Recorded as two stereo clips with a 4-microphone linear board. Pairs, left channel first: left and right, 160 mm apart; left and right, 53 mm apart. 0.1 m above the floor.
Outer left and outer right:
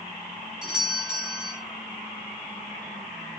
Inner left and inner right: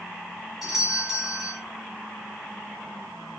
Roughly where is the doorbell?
Centre.